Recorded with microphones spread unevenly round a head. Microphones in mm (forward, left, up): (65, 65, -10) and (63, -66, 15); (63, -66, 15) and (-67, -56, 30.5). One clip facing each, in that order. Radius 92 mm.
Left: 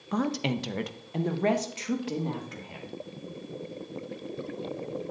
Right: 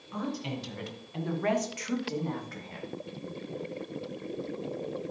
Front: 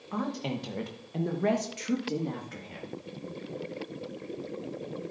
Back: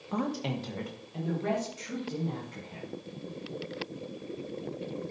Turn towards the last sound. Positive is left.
turn(degrees=15)